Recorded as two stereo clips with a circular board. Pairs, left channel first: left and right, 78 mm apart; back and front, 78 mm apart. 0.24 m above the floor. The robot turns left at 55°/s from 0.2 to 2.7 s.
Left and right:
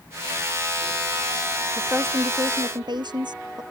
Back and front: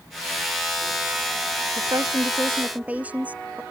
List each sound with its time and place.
1.8 s a woman speaking: 20° right; by 3.6 s 70° right